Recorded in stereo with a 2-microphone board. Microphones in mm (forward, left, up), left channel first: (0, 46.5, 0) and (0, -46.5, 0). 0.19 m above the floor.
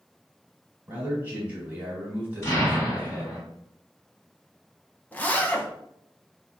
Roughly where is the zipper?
Centre.